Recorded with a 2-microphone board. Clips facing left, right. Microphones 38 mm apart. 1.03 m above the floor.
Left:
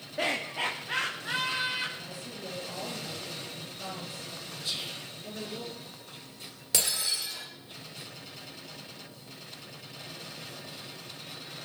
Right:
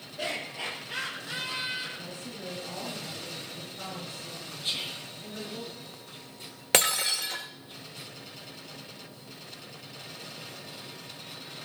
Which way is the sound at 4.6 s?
45° right (ahead or behind).